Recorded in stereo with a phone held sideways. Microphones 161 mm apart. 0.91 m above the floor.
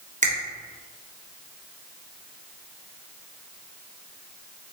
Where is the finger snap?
50° right (ahead or behind), 0.9 m.